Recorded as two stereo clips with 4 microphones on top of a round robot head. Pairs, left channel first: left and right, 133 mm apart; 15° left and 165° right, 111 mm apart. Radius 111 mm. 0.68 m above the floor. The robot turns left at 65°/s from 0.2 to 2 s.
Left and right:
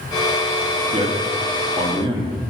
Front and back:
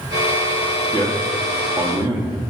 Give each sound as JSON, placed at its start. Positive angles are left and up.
{"t": 0.9, "sound": "a man speaking", "azimuth_deg": -55, "distance_m": 1.7}